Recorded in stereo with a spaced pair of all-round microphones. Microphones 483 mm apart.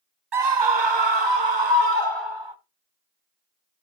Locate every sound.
0.3 s a scream: 60° right (ahead or behind), 0.7 m; by 2.5 s 65° right (ahead or behind), 2 m